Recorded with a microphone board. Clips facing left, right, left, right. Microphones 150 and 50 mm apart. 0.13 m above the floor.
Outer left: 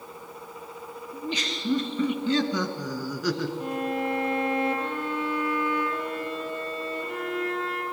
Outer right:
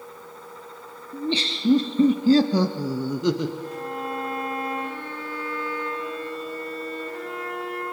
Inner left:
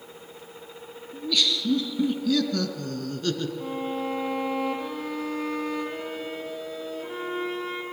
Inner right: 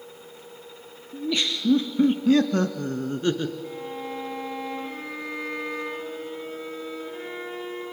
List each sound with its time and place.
1.1 s laughter: 25° right (ahead or behind), 2 m; by 3.5 s 15° right (ahead or behind), 1.6 m
3.6 s a violin: 70° left (ahead or behind), 5 m